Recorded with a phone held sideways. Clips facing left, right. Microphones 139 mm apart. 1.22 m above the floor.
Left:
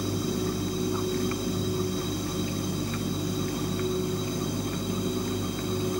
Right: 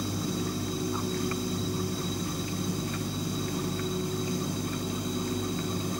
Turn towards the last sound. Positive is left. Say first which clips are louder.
# left 3 dB
turn(degrees=60)  # may be behind; listen again after turning